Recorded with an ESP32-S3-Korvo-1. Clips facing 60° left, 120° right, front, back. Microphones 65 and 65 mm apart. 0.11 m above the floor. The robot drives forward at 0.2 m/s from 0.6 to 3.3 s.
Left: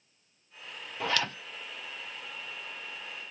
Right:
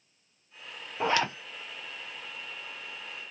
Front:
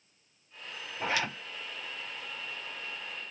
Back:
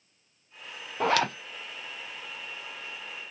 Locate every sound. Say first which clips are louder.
1.0 s a zipper: right 4 dB, back 7 dB; 175° left, 0.6 m